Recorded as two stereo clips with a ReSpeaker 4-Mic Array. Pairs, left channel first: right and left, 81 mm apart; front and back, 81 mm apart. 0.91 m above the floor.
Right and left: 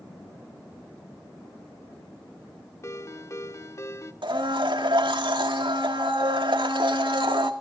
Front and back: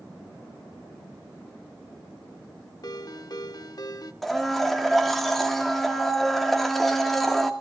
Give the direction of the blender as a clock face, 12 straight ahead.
9 o'clock.